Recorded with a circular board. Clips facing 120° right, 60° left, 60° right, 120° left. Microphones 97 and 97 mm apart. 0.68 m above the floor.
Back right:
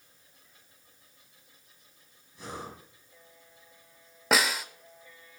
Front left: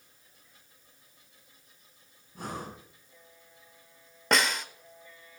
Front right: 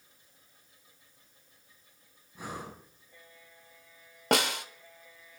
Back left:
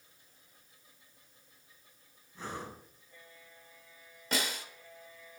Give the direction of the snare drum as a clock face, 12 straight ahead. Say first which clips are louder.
Even, front right 8 dB; 1 o'clock.